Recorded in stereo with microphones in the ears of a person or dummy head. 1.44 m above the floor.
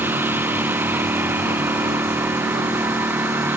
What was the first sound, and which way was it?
A lawn mower, 15° right (ahead or behind).